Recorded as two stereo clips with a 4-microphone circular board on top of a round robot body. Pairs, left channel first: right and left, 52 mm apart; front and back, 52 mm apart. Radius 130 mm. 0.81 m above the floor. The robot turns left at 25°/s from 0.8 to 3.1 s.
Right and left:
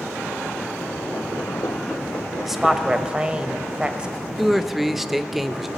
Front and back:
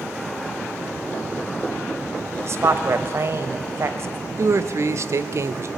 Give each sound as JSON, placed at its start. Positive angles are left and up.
{"t": 2.4, "sound": "a woman speaking", "azimuth_deg": 175, "distance_m": 1.1}
{"t": 4.4, "sound": "a man speaking", "azimuth_deg": 175, "distance_m": 0.7}